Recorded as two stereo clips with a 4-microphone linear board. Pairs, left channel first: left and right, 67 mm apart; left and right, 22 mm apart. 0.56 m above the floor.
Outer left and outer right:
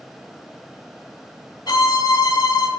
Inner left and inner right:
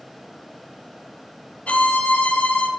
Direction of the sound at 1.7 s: 85° left.